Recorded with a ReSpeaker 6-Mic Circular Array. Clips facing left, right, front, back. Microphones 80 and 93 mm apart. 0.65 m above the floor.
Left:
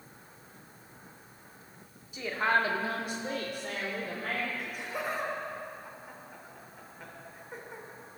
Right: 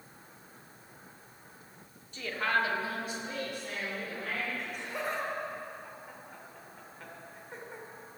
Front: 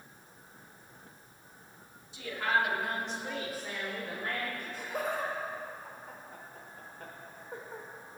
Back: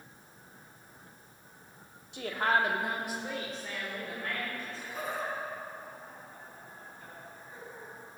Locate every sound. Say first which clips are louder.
2.1 s a woman speaking: left 3 dB, back 2 dB; 170° left, 1.6 m; by 4.5 s 65° left, 3 m
4.6 s laughter: left 1 dB, front 3 dB; 5° left, 3 m